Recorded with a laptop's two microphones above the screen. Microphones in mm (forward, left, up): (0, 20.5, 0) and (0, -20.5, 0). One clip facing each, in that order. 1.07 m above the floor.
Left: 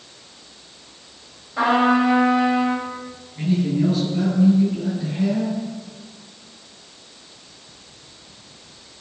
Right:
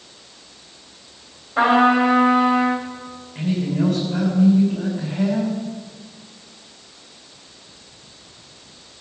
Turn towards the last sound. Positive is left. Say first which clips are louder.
# left 1 dB
turn(degrees=-70)  # may be behind; listen again after turning